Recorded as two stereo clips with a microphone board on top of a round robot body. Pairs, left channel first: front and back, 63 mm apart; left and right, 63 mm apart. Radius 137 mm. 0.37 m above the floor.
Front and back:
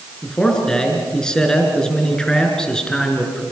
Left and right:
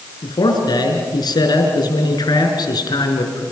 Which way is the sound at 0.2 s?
80° left.